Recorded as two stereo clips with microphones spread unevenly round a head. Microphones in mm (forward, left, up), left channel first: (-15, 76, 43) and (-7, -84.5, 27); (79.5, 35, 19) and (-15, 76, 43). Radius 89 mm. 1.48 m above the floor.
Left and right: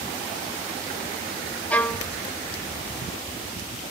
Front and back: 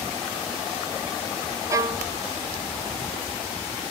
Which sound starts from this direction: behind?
A violin, at 1.7 s.